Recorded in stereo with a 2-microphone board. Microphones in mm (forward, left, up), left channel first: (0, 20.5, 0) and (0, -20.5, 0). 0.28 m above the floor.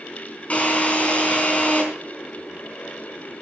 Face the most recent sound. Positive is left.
turn(degrees=35)  # may be behind; listen again after turning